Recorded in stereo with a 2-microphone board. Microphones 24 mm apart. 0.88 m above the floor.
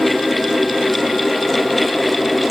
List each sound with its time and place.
Only background noise.